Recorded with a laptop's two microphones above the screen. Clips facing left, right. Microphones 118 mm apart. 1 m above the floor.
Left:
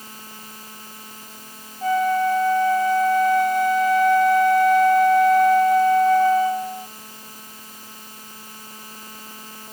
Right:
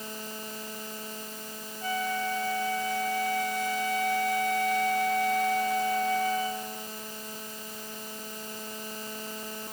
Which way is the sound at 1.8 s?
50° left (ahead or behind).